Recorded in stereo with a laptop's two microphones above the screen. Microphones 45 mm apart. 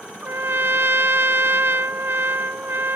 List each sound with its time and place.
0.2 s a trumpet: 55° right (ahead or behind)